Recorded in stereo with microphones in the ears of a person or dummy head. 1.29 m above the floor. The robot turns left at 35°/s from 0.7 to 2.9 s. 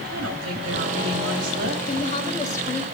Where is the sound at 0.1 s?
90° right, 3 m; by 1.8 s 130° right, 3 m.